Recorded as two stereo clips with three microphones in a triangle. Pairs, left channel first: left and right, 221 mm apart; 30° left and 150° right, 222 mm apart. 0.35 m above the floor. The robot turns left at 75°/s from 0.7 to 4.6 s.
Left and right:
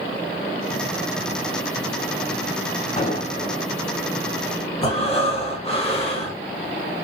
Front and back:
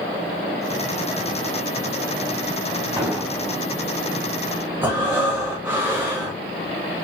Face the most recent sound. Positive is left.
turn(degrees=135)